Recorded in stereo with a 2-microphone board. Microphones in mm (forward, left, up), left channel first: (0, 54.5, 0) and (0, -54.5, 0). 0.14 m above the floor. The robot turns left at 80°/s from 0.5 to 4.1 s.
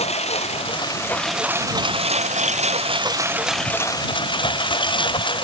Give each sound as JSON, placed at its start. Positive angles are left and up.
{"t": 0.0, "sound": "a lawn mower", "side_deg": 65}